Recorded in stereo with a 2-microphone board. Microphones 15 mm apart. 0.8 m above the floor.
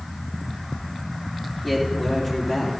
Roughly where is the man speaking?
Left.